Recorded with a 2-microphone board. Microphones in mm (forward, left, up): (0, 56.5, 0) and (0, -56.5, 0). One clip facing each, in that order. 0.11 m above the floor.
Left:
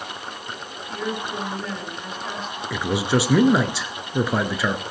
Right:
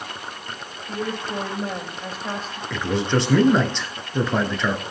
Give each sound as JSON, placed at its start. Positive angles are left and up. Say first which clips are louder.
{"t": 0.9, "sound": "a woman speaking", "louder": "right 1 dB", "side_deg": -40, "distance_m": 4.5}
{"t": 2.7, "sound": "a man speaking", "louder": "even", "side_deg": 10, "distance_m": 1.1}